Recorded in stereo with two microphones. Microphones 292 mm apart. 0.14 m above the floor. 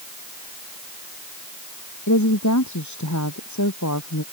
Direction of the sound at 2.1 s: 75° left (ahead or behind).